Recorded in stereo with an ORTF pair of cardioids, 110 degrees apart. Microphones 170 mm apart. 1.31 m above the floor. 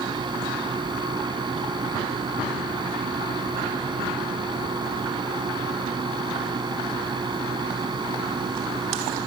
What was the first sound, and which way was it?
A fan, 25° right.